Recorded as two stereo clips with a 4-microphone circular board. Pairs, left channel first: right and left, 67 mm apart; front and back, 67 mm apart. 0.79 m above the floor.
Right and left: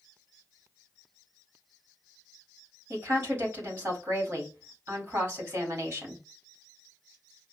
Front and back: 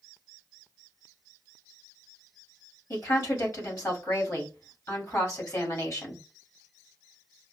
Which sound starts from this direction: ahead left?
A woman speaking, at 2.9 s.